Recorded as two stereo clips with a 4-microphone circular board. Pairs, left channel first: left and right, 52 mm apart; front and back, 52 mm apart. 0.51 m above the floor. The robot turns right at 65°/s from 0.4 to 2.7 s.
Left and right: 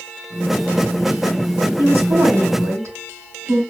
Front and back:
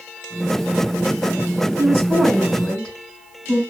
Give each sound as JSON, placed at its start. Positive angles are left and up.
{"t": 1.8, "sound": "a woman speaking", "azimuth_deg": -130, "distance_m": 4.0}